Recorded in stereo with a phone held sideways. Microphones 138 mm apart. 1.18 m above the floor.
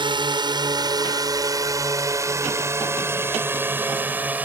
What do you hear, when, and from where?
0.0 s a drone: 30° right (ahead or behind); by 4.5 s 10° right (ahead or behind)